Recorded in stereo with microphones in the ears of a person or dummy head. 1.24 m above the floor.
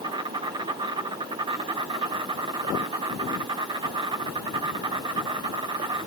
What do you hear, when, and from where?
0.0 s an insect: 25° right (ahead or behind), 1.2 m